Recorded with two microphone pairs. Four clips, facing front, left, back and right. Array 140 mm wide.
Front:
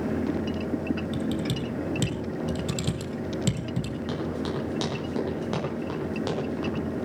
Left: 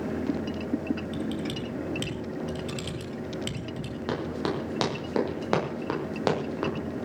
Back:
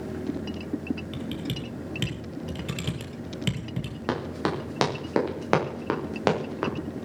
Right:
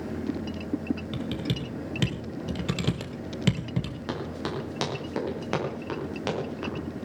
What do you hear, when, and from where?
1.1 s typing on a keyboard: 85° right, 1.9 m
4.1 s running footsteps: 170° left, 6.5 m; by 6.7 s 150° left, 5.5 m